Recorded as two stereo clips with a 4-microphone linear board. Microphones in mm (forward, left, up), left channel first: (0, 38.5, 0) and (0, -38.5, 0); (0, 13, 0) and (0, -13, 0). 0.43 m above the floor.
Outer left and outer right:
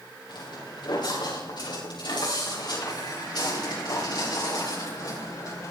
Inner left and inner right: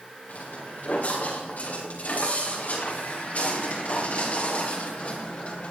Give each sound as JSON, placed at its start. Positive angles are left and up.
{"t": 0.3, "sound": "footsteps", "side_deg": 70, "distance_m": 9.0}